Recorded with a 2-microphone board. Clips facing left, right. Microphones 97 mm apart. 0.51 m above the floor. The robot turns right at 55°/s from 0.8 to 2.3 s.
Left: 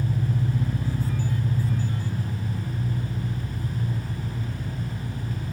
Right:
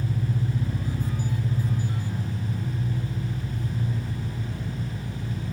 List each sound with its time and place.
0.0 s an engine running: 95° left, 1.1 m; by 5.5 s 175° left, 1.1 m